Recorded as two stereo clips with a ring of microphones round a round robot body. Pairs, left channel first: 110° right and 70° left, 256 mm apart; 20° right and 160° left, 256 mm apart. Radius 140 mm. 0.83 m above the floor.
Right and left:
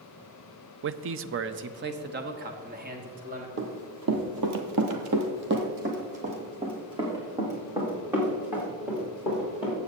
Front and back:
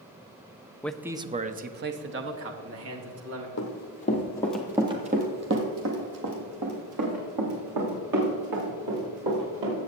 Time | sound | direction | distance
0.8 | a man speaking | 60° left | 0.5 m
3.6 | running footsteps | 25° left | 1.8 m